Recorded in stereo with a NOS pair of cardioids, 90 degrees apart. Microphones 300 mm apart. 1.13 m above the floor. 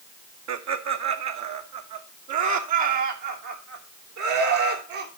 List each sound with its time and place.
0.5 s laughter: 65° right, 1.5 m; by 5.1 s 80° right, 4 m